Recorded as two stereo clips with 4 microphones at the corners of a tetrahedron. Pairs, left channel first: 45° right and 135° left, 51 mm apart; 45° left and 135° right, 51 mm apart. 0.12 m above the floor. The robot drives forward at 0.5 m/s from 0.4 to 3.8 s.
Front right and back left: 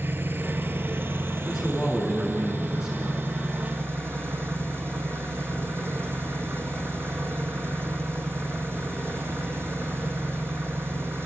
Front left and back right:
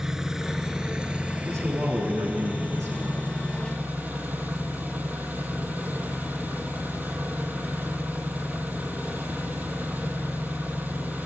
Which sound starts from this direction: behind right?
A man speaking, at 1.4 s.